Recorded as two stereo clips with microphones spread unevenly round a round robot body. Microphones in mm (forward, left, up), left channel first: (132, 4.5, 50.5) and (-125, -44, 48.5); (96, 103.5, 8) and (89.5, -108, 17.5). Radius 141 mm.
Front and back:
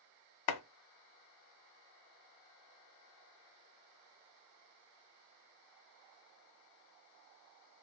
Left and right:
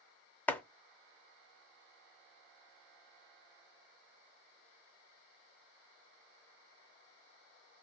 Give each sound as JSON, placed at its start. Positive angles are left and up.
{"t": 0.5, "sound": "chopping", "azimuth_deg": 5, "distance_m": 0.5}